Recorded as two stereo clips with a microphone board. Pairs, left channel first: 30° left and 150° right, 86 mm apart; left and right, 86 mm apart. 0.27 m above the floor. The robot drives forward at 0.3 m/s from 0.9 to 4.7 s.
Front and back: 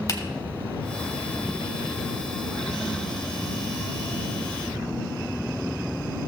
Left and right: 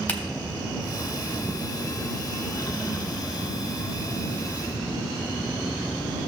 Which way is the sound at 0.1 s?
30° left.